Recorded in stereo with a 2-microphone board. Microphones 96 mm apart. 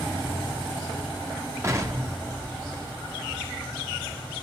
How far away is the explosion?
About 2.5 m.